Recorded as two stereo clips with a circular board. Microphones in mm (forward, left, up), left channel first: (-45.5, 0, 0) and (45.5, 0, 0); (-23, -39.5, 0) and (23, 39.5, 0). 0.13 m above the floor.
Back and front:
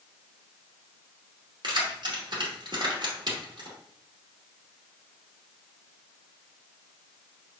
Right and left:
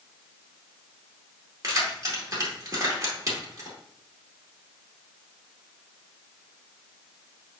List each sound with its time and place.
1.6 s keys jangling: 15° left, 1.9 m